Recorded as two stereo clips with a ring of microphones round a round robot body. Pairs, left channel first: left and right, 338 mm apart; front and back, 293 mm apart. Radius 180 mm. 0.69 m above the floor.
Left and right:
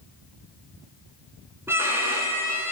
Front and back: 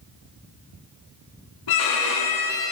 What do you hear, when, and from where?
1.7 s a violin: 5° right, 1.6 m